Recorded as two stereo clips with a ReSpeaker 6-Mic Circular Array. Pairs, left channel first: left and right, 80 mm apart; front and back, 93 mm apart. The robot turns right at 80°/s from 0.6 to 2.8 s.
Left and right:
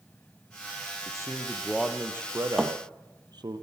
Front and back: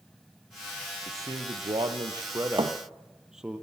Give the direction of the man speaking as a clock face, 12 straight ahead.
8 o'clock.